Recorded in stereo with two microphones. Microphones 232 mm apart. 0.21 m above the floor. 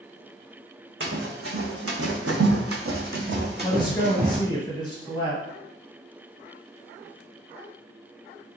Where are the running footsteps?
55° right (ahead or behind), 1.2 m; by 4.4 s 30° right (ahead or behind), 1.3 m.